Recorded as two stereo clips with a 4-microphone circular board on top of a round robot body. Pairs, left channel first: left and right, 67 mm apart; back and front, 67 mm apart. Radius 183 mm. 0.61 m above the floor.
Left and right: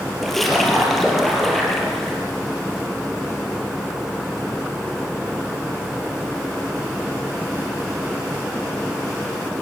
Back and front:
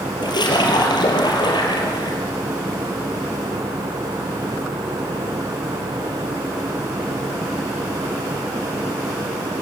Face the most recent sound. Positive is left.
turn(degrees=180)